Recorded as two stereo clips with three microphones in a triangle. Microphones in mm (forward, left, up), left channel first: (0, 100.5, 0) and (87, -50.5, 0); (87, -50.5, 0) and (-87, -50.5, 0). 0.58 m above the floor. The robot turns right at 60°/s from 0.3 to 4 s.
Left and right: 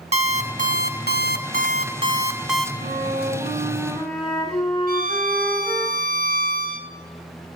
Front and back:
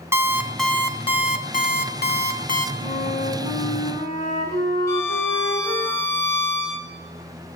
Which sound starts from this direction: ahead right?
A flute, at 2.8 s.